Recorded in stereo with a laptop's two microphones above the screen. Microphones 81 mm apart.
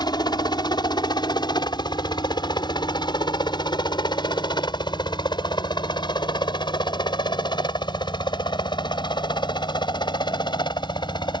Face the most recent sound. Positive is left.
turn(degrees=65)  # may be behind; listen again after turning